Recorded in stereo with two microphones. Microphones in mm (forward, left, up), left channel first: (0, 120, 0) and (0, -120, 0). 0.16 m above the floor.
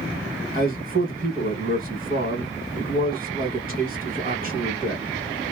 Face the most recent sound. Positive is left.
turn(degrees=-35)  # may be behind; listen again after turning